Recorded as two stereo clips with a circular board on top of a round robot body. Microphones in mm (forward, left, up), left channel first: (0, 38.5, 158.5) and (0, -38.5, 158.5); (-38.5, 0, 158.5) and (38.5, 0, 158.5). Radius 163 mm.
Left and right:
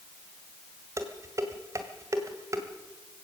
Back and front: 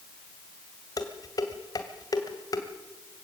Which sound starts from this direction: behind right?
Dishes clattering, at 1.0 s.